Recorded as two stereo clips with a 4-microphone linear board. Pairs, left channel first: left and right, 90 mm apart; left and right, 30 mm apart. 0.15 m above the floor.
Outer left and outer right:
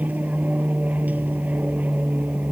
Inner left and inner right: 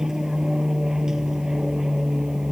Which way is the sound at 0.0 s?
20° right (ahead or behind).